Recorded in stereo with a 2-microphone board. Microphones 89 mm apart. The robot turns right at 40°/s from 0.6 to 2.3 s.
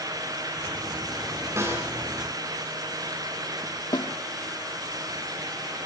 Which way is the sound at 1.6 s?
30° right (ahead or behind).